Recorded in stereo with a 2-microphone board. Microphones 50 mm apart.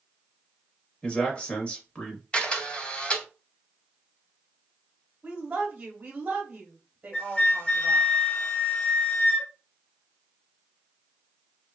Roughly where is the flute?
Left.